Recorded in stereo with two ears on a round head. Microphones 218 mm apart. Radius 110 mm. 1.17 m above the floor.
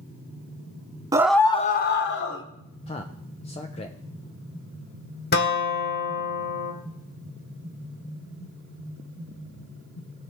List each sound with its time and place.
1.1 s a scream: 15° right (ahead or behind), 0.5 m; by 2.4 s 55° left (ahead or behind), 1.1 m
2.9 s a man speaking: 25° left (ahead or behind), 0.6 m
5.3 s a guitar: 40° left (ahead or behind), 1.4 m